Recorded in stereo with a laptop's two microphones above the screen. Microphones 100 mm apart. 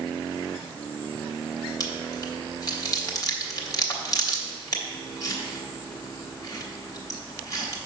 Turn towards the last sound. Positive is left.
turn(degrees=40)  # may be behind; listen again after turning